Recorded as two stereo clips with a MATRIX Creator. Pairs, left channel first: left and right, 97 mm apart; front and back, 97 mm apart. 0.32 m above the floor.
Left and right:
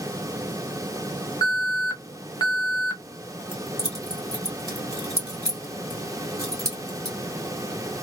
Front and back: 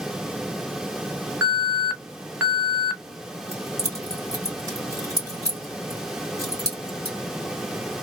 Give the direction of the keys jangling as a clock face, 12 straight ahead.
4 o'clock.